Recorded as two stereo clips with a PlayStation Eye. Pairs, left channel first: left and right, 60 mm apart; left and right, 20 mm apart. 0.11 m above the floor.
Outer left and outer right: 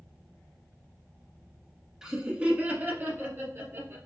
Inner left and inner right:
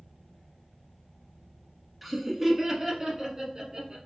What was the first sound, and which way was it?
Laughter, 10° right (ahead or behind).